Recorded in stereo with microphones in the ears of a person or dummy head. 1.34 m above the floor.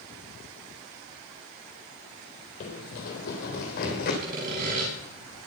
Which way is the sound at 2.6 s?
45° left (ahead or behind).